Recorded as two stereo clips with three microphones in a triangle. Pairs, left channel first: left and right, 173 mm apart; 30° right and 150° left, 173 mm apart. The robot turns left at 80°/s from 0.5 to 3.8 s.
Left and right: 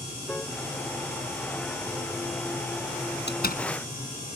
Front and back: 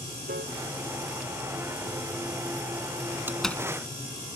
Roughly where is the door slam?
Left.